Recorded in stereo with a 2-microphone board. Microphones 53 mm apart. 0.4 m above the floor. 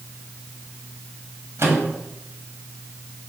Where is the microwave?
60° right (ahead or behind), 1.6 m.